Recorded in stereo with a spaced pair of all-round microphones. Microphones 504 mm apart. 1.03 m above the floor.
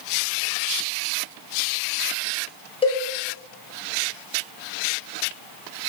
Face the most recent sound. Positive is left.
turn(degrees=10)  # may be behind; listen again after turning